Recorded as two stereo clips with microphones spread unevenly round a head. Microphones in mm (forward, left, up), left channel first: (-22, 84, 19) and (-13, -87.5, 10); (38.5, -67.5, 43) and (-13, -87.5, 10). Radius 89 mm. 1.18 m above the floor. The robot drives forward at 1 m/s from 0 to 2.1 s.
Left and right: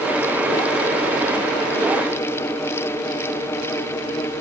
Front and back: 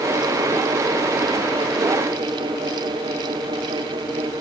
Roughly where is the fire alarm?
I don't hear a fire alarm.